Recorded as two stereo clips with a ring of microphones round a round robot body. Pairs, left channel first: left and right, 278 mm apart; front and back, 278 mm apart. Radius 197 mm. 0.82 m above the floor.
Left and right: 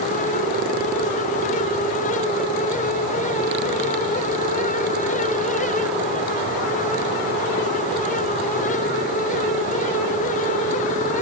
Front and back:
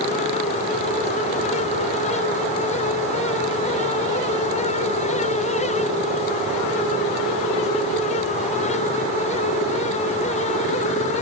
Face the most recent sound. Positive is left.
No sound to turn to.